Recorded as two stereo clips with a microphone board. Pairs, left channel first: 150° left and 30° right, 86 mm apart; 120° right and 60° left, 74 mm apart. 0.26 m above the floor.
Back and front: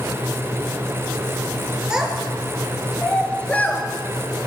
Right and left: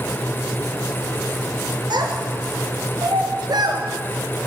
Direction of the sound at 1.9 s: 50° left.